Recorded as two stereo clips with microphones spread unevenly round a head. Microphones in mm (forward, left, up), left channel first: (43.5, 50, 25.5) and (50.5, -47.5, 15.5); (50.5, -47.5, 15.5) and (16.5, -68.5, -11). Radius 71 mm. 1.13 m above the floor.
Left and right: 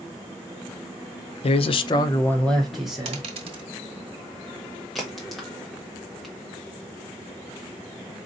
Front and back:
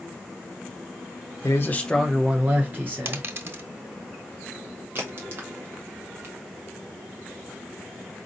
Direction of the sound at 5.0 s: 175° right.